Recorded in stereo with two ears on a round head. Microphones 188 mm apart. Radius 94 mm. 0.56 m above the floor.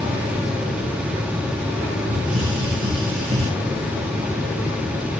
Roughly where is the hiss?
Right.